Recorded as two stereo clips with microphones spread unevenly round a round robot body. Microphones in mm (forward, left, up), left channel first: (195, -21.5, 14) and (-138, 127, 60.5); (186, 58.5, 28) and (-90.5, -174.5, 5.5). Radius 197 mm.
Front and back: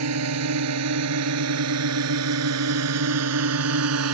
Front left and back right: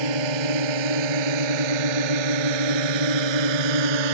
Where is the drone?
150° right.